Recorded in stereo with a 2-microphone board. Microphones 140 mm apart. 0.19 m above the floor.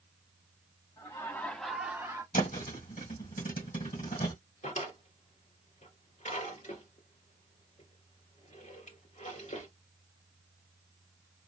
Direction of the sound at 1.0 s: 30° left (ahead or behind).